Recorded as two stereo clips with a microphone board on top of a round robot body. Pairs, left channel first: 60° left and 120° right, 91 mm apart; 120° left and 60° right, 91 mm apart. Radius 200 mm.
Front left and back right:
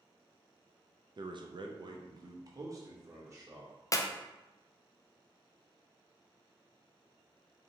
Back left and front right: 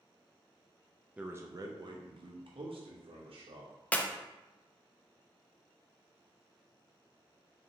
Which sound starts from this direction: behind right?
A man speaking, at 1.2 s.